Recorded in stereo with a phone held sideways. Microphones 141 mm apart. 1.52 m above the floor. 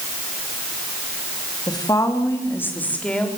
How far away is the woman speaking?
About 3 m.